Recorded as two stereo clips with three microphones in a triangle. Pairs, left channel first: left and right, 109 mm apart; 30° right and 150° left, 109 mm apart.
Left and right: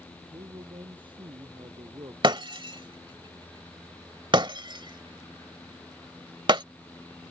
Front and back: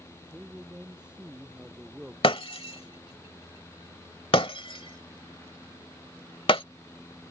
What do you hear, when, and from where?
0.3 s a man speaking: 130° right
2.2 s breaking glass: 55° right